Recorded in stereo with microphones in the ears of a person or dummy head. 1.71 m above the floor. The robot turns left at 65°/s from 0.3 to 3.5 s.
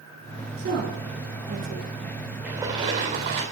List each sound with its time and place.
0.6 s a woman speaking: 50° right (ahead or behind), 5 m; by 2.2 s 25° right (ahead or behind), 5 m
2.4 s a splash: 10° right, 4 m; by 3.4 s 75° right, 4 m